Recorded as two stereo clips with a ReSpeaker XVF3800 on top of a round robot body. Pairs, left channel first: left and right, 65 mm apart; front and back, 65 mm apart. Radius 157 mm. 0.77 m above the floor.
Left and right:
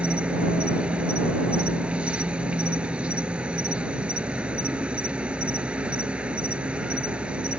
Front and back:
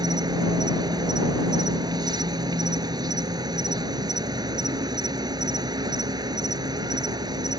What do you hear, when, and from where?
0.0 s an insect: 165° right